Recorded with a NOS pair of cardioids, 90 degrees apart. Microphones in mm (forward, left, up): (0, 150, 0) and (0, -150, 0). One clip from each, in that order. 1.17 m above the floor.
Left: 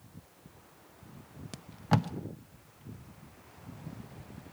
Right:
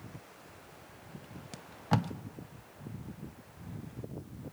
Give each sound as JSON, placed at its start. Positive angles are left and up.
{"t": 1.5, "sound": "tape being pulled", "azimuth_deg": 10, "distance_m": 0.9}